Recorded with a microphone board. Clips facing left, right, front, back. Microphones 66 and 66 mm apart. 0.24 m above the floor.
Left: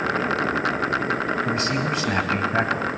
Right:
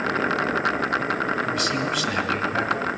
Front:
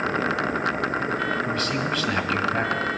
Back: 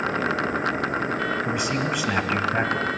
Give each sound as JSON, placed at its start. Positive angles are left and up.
{"t": 1.4, "sound": "a man speaking", "azimuth_deg": 120, "distance_m": 1.4}